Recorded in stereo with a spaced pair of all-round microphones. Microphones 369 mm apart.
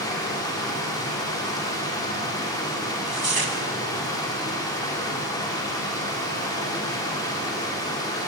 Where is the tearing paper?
75° right (ahead or behind), 0.9 m.